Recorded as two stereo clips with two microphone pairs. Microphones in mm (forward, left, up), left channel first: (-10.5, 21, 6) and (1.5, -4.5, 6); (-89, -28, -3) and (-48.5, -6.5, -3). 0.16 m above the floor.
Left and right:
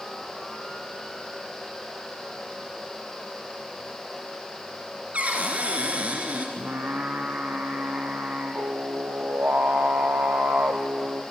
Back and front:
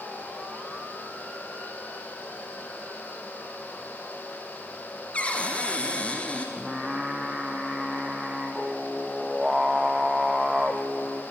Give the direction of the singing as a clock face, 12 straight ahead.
2 o'clock.